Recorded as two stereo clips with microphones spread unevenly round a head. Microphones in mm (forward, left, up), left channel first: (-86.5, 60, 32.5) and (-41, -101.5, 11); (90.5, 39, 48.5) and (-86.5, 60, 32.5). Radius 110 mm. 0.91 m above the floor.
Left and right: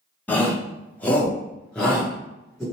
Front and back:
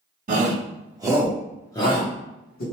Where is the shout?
170° right, 1.3 m; by 2.6 s 10° left, 1.2 m.